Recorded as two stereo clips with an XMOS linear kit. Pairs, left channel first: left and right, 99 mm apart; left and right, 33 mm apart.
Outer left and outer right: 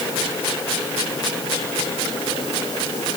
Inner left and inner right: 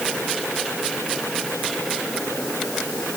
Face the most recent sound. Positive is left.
No sound to turn to.